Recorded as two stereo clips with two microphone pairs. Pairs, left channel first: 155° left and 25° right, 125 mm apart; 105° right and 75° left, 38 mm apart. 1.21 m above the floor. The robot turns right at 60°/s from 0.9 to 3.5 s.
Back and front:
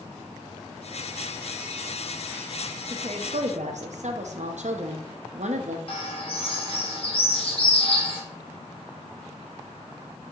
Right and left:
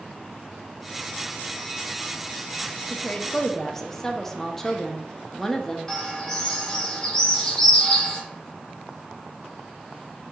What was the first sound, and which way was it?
A woman speaking, 60° right.